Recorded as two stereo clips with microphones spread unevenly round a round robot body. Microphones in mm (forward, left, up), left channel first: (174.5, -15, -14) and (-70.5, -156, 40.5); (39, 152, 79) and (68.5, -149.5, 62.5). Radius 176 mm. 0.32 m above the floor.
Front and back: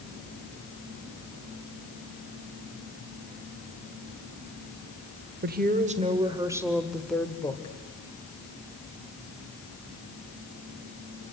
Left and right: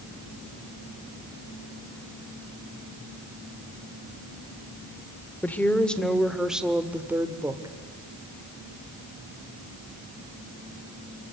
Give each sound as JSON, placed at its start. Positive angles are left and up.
{"t": 5.4, "sound": "a woman speaking", "azimuth_deg": 180, "distance_m": 1.4}